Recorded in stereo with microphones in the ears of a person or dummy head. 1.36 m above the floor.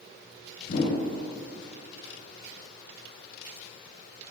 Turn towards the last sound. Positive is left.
turn(degrees=60)  # may be behind; listen again after turning